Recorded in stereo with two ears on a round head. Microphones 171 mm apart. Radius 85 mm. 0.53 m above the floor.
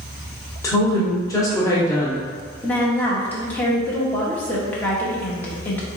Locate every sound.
0.6 s a woman speaking: 15° left (ahead or behind), 0.9 m
2.6 s a woman speaking: 10° left (ahead or behind), 0.8 m